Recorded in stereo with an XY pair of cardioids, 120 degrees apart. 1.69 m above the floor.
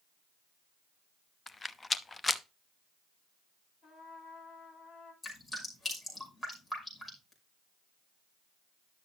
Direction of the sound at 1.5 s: 20° left.